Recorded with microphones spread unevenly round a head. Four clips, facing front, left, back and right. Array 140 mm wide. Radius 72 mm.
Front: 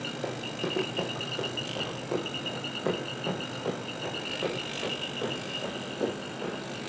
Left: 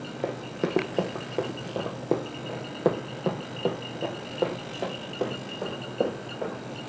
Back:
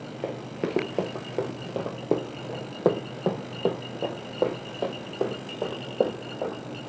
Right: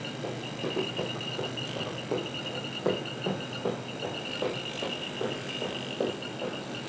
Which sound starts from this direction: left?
Running footsteps, at 0.2 s.